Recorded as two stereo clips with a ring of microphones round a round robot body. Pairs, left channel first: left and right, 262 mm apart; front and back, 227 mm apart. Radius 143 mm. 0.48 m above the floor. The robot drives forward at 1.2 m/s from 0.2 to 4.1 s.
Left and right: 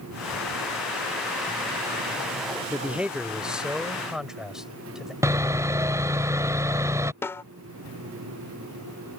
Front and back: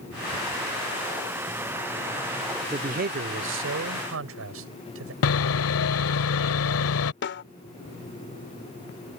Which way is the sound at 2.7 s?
165° right.